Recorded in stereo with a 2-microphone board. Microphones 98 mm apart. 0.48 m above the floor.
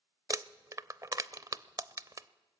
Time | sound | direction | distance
0.3 | crumpling | 35° right (ahead or behind) | 0.6 m